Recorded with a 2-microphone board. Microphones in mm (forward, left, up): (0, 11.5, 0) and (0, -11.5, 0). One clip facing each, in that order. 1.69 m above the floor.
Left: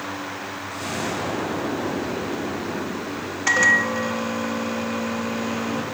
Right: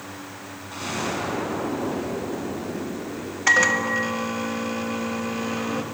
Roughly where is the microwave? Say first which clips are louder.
Left 1 dB; centre.